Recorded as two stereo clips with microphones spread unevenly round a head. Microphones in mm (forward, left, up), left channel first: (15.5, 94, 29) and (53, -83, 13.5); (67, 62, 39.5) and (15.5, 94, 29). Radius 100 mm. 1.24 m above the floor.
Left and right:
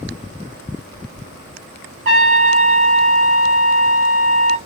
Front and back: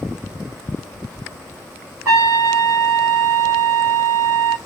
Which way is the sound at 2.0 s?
135° right.